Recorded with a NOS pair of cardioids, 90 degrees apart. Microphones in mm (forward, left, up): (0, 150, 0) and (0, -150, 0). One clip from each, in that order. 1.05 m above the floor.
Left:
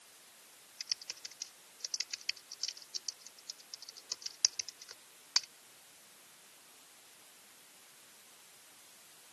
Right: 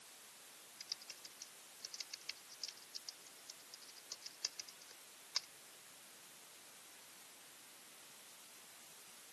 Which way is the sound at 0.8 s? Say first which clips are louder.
Left 9 dB; 60° left.